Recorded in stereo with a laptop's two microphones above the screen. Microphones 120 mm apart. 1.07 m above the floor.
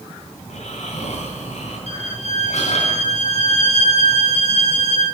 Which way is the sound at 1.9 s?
85° left.